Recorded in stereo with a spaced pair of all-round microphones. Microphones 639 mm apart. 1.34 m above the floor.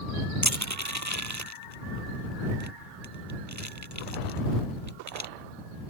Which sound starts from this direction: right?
Crushing, at 0.4 s.